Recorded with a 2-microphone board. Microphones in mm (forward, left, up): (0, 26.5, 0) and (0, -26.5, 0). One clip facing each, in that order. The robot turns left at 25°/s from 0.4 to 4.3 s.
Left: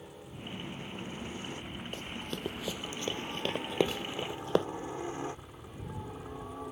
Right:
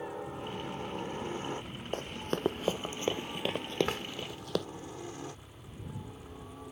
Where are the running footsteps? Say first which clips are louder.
Right 7 dB; 45° right (ahead or behind); by 4.7 s 30° left (ahead or behind).